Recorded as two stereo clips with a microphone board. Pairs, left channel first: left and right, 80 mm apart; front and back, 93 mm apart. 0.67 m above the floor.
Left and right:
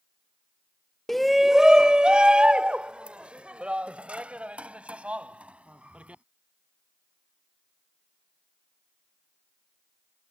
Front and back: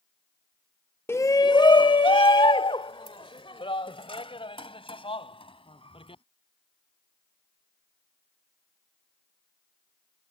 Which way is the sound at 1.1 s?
5° left.